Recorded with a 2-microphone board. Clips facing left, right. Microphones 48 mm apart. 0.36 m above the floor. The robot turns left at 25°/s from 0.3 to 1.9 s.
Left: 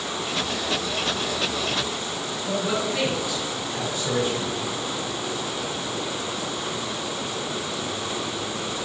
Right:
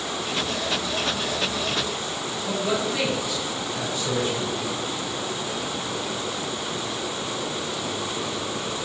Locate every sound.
2.5 s a man speaking: 20° left (ahead or behind), 1.5 m